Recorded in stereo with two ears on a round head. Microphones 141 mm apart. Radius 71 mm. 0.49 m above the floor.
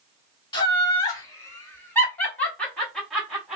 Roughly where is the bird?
No bird in this recording.